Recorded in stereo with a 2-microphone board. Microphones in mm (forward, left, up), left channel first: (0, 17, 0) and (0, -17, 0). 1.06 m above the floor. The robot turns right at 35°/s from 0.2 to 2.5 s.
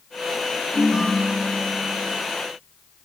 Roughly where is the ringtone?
Ahead right.